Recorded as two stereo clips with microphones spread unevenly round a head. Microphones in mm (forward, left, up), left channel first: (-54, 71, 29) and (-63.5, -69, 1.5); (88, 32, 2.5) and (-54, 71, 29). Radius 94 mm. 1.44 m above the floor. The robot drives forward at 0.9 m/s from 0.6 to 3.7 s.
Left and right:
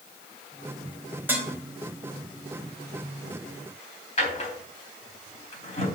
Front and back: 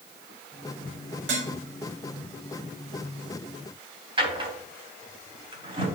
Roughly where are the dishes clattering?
Behind.